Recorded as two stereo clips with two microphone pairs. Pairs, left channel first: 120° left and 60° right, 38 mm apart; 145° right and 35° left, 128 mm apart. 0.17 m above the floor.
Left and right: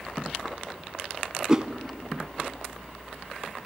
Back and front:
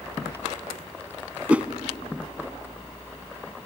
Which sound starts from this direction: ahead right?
A whoosh, at 1.5 s.